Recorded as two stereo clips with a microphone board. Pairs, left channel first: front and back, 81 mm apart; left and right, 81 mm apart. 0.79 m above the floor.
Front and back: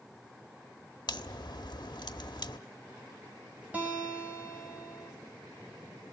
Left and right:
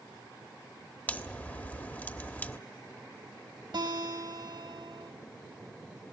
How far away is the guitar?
About 6 m.